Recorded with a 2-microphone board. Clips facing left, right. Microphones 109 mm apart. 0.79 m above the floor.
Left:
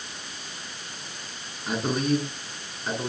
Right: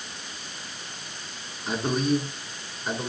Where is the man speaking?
Centre (ahead or behind), 7.5 m; by 3.1 s 5° right (ahead or behind), 8 m.